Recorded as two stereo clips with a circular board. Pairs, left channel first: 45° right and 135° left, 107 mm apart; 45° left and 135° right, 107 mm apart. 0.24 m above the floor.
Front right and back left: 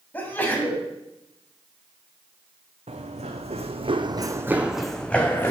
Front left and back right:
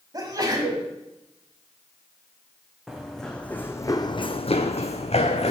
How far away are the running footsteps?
About 1.1 m.